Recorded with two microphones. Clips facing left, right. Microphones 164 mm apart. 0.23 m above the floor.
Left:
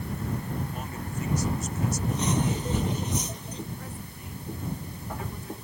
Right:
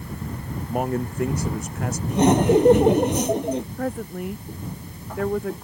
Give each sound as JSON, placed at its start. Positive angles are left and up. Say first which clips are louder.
{"t": 0.7, "sound": "a man speaking", "louder": "right 11 dB", "side_deg": -75}
{"t": 2.1, "sound": "laughter", "louder": "right 15 dB", "side_deg": -80}
{"t": 3.8, "sound": "a woman speaking", "louder": "right 14 dB", "side_deg": -85}